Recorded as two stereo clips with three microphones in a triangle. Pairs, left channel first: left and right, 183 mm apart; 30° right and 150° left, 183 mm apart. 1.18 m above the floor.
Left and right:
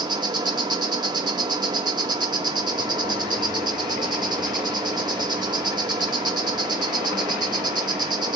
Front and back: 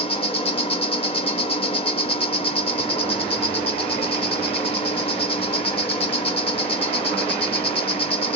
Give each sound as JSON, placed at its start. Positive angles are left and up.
{"t": 0.0, "sound": "an insect", "azimuth_deg": -45, "distance_m": 0.8}